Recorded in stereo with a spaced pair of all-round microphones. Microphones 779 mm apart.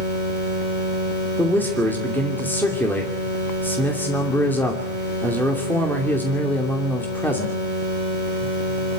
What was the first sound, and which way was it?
A man speaking, centre (ahead or behind).